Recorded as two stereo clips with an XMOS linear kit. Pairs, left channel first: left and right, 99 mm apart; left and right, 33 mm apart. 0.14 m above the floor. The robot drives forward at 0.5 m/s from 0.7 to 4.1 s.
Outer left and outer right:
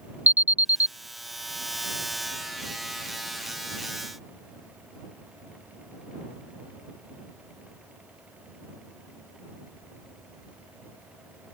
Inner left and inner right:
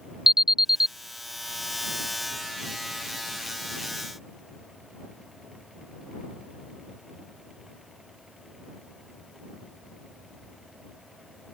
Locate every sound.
0.3 s an alarm: 20° right (ahead or behind); by 0.9 s 15° right (ahead or behind)